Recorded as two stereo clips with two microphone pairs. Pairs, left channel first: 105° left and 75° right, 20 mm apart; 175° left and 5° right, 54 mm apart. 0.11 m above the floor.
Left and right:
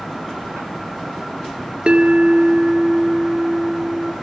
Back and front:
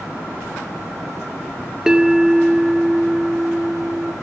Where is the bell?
80° right, 1.1 m.